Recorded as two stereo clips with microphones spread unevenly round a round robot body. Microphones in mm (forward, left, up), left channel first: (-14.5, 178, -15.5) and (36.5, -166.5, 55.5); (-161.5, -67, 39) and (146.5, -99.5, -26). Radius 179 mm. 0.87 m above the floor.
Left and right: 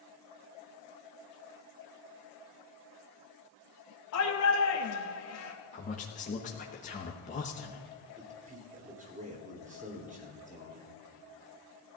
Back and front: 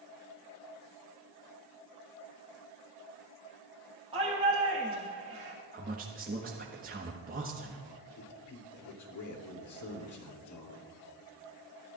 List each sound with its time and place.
4.1 s a shout: 60° left, 1.5 m
5.7 s a man speaking: 45° left, 1.2 m
8.2 s a man speaking: 155° right, 3 m